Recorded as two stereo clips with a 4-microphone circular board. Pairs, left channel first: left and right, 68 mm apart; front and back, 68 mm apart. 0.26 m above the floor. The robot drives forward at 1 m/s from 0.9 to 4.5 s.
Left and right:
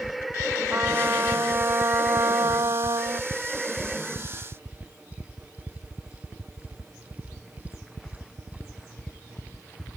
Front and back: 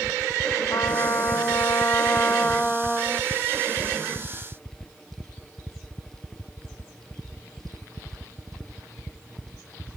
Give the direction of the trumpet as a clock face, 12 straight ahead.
1 o'clock.